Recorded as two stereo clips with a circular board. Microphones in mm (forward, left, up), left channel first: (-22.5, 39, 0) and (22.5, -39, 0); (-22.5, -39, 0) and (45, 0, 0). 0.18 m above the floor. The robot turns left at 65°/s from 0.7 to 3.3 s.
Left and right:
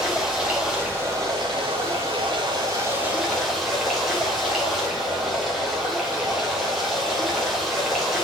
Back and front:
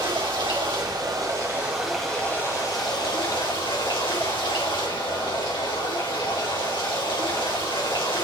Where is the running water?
20° left, 3.5 m; by 8.2 s 150° right, 3.5 m.